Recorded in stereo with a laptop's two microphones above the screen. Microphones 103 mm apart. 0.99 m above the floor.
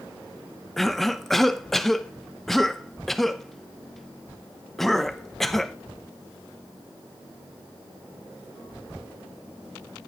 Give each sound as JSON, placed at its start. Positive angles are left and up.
{"t": 0.8, "sound": "a cough", "side_deg": 0, "distance_m": 0.5}